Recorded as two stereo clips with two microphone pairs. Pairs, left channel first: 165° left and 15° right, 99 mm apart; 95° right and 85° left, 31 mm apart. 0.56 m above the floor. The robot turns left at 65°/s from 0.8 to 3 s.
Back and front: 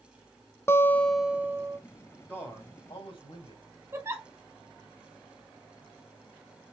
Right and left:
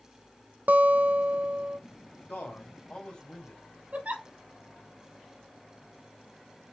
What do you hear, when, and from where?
0.7 s a guitar: 105° left, 0.8 m; by 1.8 s 40° left, 0.8 m
2.3 s a man speaking: 120° right, 3.5 m; by 3.6 s 165° right, 3.5 m
3.9 s a giggle: 50° left, 1.6 m